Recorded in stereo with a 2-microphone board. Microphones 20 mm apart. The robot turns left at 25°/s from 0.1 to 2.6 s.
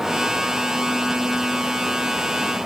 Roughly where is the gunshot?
No gunshot in this recording.